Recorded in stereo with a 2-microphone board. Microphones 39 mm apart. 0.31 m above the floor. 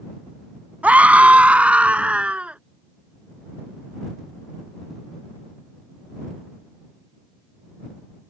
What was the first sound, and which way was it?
A scream, 40° right (ahead or behind).